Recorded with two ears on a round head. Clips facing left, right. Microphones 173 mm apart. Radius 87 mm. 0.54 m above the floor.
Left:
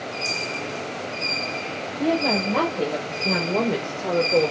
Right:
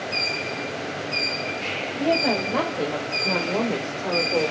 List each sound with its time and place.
2.0 s a woman speaking: 10° right (ahead or behind), 3 m; by 4.5 s 20° left (ahead or behind), 2.0 m